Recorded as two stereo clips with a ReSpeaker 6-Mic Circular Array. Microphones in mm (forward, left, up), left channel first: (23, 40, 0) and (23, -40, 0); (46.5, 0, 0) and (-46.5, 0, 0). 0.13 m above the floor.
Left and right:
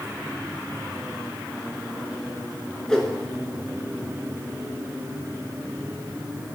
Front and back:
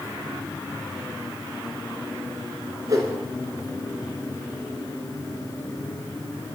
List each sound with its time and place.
2.9 s a whoosh: 165° left, 0.9 m